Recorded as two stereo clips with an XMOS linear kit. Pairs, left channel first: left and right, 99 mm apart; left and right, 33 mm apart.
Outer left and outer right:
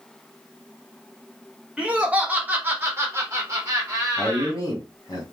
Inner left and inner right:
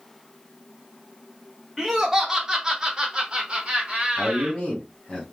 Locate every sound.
1.8 s laughter: 10° right (ahead or behind), 1.2 m; by 4.6 s 25° right (ahead or behind), 1.2 m
4.2 s a man speaking: 35° left (ahead or behind), 1.6 m